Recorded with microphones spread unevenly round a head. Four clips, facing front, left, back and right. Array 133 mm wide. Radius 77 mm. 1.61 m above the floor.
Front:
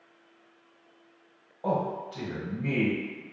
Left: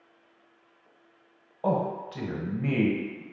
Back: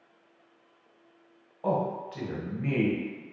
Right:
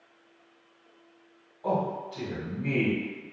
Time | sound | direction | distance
1.6 | a man speaking | 90° left | 1.0 m